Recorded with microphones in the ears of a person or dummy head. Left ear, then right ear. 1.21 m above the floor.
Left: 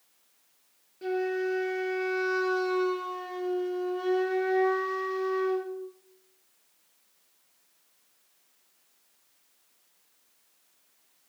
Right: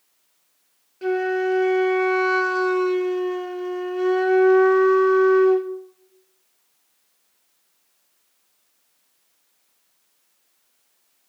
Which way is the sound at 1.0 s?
45° right (ahead or behind).